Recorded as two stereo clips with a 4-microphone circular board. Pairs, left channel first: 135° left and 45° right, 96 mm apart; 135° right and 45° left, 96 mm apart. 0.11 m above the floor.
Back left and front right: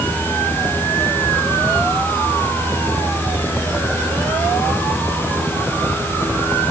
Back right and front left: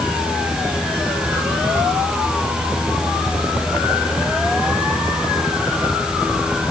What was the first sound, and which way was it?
Only background noise.